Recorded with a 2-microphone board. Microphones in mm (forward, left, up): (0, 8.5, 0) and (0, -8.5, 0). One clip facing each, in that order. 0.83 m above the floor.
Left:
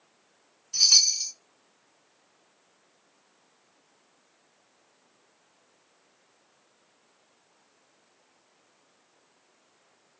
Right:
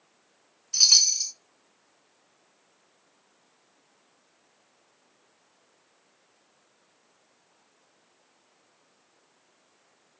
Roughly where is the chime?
Right.